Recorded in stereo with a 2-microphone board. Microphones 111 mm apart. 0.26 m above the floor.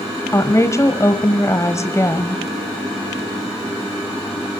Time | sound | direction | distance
0.3 | a woman speaking | 30° left (ahead or behind) | 1.2 m